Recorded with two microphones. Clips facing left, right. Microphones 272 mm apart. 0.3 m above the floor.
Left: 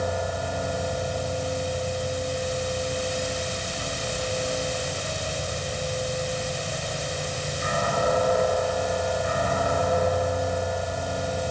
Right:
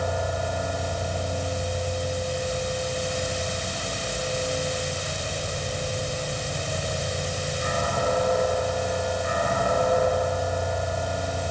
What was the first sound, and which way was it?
Only background noise.